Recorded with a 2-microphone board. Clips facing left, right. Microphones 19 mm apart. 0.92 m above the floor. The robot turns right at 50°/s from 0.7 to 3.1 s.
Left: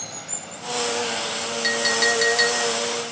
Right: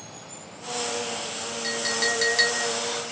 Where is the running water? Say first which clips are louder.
Left 7 dB; 75° left, 1.7 m; by 3.1 s 165° right, 1.7 m.